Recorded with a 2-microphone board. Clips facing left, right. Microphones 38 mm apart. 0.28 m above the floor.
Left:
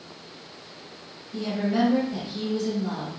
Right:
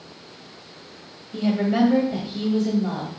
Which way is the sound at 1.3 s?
35° right (ahead or behind).